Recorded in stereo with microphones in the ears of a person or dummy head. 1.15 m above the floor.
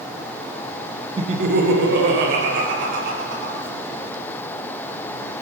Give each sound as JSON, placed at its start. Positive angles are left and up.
{"t": 1.2, "sound": "laughter", "side_deg": -20, "distance_m": 0.5}